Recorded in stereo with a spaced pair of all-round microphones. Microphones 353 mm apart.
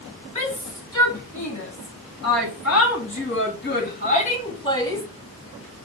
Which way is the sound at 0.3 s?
60° left (ahead or behind).